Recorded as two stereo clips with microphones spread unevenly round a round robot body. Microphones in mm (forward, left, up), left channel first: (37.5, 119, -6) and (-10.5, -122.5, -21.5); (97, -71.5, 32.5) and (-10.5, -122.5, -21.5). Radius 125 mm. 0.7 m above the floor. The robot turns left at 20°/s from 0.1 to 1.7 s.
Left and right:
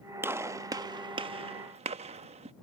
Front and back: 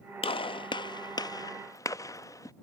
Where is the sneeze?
No sneeze in this recording.